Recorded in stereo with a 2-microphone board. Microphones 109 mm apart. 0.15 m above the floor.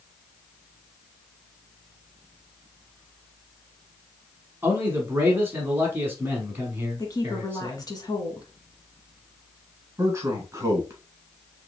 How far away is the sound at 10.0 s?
About 1.9 m.